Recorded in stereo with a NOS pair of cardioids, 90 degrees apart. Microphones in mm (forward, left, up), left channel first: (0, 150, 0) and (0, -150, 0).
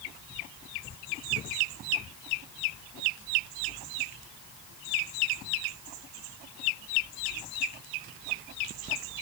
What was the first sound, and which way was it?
Only background noise.